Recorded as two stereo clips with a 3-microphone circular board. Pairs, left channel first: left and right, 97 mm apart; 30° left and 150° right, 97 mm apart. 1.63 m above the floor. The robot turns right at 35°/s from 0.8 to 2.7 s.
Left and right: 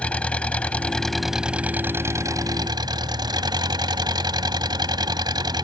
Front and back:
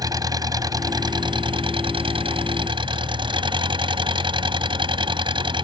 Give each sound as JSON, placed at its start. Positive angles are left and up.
{"t": 0.0, "sound": "an engine running", "azimuth_deg": 165}